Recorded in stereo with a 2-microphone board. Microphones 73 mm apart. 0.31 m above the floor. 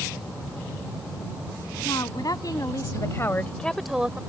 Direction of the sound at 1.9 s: 65° left (ahead or behind).